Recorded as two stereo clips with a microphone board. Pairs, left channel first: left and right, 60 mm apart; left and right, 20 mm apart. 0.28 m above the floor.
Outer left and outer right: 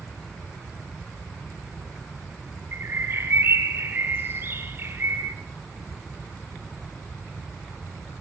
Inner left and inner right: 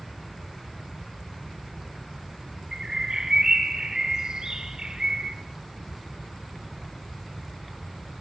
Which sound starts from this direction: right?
A bird, at 2.7 s.